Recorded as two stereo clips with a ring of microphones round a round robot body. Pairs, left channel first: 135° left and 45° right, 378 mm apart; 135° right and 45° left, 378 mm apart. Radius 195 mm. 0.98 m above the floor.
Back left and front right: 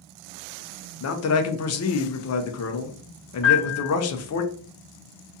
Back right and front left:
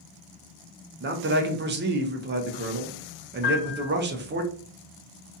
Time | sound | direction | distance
1.0 | a man speaking | 100° left | 0.5 m
3.4 | a piano | 170° left | 0.8 m